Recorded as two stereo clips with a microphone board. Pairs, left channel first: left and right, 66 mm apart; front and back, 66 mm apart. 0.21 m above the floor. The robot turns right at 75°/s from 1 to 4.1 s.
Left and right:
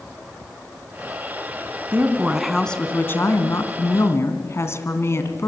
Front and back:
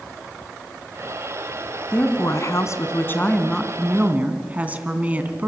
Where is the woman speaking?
45° right, 2.5 m; by 5.5 s 120° left, 2.5 m.